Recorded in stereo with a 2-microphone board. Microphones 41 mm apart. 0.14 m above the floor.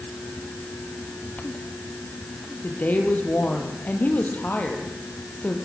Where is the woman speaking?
45° left (ahead or behind), 3.5 m.